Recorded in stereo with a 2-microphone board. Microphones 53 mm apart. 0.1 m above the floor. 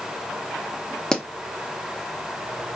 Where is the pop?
10° left (ahead or behind), 0.6 m.